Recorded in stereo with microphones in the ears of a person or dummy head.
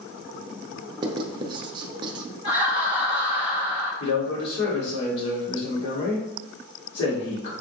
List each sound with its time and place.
1.0 s writing: 30° right (ahead or behind), 0.6 m
2.4 s laughter: 20° right (ahead or behind), 1.2 m
4.0 s a man speaking: 70° left (ahead or behind), 1.8 m